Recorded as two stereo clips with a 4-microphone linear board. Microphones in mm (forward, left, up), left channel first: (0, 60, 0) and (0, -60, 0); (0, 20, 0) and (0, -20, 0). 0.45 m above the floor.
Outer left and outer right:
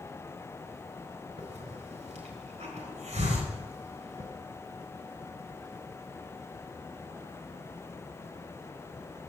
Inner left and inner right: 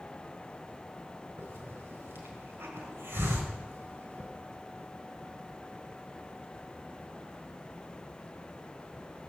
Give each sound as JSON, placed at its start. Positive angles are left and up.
{"t": 1.4, "sound": "a hiss", "side_deg": -75, "distance_m": 3.5}